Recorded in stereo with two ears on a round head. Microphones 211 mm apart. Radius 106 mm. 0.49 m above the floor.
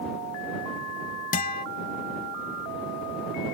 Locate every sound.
1.3 s a guitar: 35° left (ahead or behind)